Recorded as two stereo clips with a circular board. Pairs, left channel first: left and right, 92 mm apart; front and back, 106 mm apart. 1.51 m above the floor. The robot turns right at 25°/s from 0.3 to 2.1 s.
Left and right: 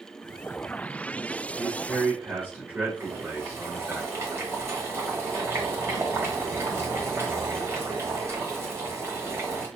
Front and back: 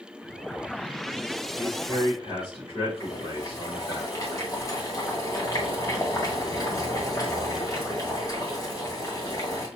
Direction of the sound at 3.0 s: 45° right.